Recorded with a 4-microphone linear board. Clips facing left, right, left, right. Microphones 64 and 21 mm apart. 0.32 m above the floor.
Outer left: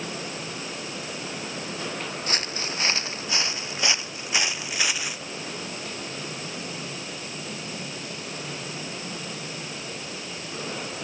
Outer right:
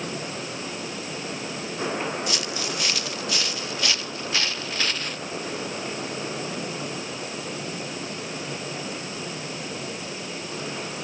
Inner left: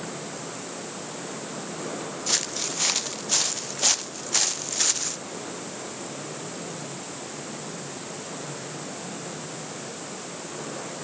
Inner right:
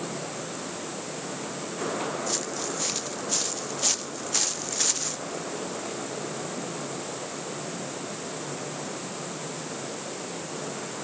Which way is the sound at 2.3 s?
40° left (ahead or behind).